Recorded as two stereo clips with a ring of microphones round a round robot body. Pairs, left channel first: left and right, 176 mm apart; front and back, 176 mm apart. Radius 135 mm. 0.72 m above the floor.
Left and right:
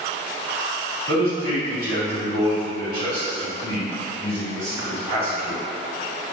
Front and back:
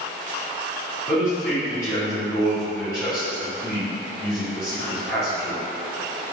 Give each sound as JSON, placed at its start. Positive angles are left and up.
{"t": 1.1, "sound": "a man speaking", "azimuth_deg": -70, "distance_m": 1.7}